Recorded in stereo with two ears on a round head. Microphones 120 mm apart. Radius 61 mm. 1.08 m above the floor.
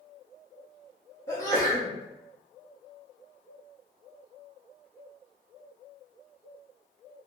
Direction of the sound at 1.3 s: 20° left (ahead or behind).